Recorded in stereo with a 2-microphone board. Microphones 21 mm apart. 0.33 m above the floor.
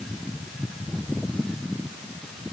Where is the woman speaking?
I don't hear a woman speaking.